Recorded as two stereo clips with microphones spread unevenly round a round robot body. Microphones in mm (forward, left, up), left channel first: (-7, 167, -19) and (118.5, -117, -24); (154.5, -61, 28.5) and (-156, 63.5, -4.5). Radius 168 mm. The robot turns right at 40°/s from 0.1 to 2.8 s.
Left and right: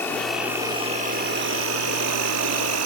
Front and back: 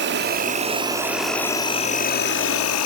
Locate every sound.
0.0 s an insect: 165° right, 0.9 m; by 2.9 s 55° right, 0.9 m